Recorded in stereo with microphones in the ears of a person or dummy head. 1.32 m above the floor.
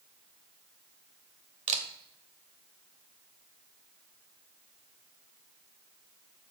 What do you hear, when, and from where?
1.7 s a camera shutter: 35° right (ahead or behind), 0.9 m